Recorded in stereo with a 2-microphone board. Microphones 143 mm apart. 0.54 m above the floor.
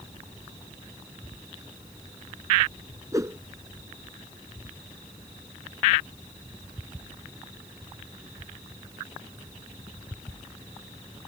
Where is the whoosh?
25° right (ahead or behind).